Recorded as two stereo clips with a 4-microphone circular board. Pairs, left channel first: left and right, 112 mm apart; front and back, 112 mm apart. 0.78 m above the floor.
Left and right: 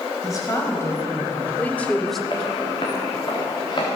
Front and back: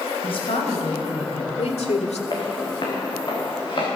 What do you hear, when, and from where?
0.2 s a woman speaking: 35° left, 4 m; by 2.2 s straight ahead, 1.5 m
2.3 s footsteps: 50° left, 4 m; by 3.9 s 45° left, 6 m